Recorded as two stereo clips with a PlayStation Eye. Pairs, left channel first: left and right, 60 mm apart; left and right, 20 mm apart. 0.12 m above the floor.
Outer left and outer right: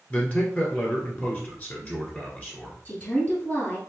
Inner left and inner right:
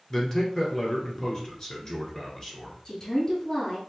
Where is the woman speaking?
25° left (ahead or behind), 1.8 m.